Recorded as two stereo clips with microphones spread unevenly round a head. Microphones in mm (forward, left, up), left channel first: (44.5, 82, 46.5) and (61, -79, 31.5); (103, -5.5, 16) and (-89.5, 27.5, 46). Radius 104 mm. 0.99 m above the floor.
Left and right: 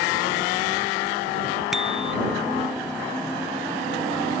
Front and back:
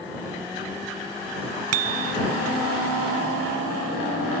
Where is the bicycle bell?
175° right.